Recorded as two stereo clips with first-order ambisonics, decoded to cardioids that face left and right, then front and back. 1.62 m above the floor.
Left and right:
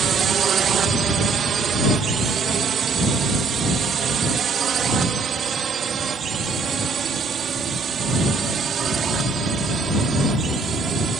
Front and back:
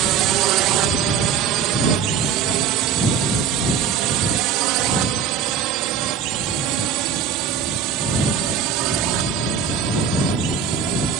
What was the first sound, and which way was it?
A drone, 150° right.